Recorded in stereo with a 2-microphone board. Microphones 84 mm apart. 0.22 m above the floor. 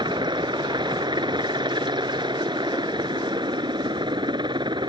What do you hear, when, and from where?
0.0 s a helicopter: 65° right (ahead or behind)